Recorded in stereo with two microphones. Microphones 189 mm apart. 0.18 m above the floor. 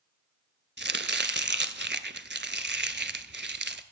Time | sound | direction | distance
0.8 | chopping | 65° right (ahead or behind) | 0.6 m